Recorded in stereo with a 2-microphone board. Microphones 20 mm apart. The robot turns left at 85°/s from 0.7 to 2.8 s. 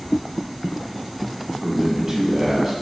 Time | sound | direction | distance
1.6 | a man speaking | 20° right (ahead or behind) | 1.1 m